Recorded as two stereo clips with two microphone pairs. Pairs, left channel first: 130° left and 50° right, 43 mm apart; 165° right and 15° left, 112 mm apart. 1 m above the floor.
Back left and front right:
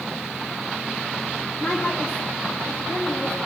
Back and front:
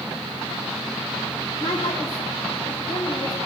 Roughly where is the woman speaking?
Behind left.